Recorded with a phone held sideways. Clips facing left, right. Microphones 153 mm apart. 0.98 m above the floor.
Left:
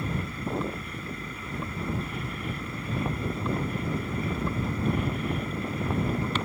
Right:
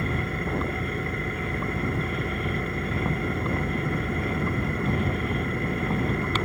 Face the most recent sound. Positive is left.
turn(degrees=-65)  # may be behind; listen again after turning